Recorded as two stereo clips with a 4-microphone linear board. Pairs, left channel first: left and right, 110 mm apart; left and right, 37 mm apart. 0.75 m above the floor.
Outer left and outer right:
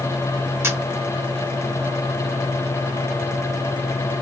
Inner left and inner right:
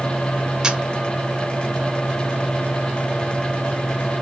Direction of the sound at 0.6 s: 25° right (ahead or behind).